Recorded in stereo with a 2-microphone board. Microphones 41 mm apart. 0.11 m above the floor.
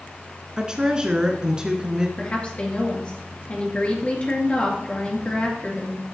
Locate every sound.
0.6 s a woman speaking: 20° right (ahead or behind), 1.1 m
2.2 s a woman speaking: 30° left (ahead or behind), 2.5 m